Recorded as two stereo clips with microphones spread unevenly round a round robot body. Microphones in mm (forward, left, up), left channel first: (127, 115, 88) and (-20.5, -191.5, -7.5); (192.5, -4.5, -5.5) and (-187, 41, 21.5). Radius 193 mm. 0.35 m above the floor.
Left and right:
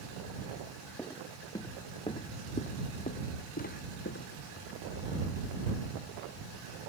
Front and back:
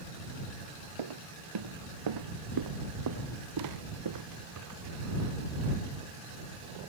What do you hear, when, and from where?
1.0 s footsteps: 150° left; by 5.7 s 125° left